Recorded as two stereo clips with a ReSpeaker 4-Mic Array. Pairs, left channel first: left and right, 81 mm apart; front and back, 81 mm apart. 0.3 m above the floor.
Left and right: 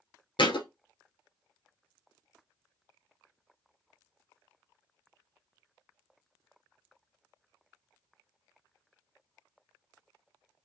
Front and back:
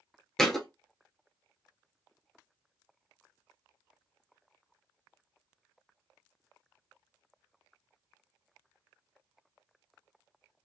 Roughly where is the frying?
No frying in this recording.